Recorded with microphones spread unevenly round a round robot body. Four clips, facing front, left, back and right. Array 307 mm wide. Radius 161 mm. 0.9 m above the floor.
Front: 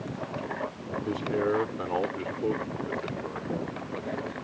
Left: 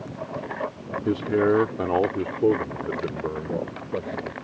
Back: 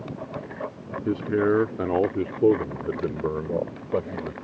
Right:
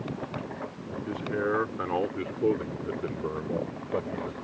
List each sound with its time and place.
1.1 s a man speaking: 125° left; by 4.3 s 175° left